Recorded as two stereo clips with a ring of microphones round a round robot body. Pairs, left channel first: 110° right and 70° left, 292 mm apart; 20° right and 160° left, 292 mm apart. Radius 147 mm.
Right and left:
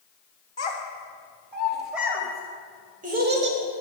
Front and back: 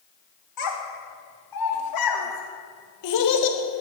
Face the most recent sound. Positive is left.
turn(degrees=25)